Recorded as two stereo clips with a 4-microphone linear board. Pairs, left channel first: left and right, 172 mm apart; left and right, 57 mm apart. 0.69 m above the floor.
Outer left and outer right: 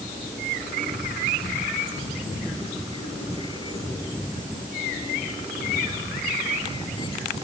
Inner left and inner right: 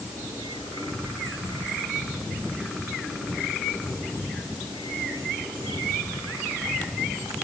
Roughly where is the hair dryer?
No hair dryer in this recording.